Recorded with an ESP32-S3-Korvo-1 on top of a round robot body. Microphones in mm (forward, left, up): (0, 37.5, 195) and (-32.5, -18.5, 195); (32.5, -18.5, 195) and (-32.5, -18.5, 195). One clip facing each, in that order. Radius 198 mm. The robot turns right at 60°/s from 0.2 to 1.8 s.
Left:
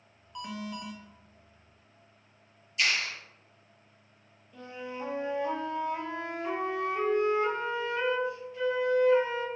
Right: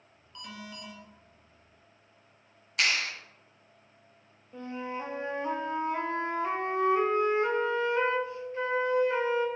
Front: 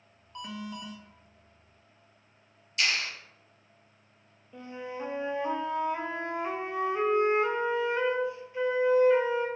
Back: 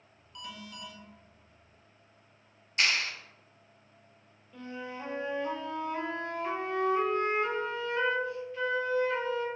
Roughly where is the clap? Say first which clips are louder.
Right 1 dB, back 1 dB; behind right.